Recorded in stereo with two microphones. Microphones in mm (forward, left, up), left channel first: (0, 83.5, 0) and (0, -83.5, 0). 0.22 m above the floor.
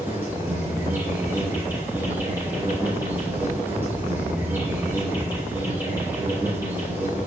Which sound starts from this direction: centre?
An insect, at 0.0 s.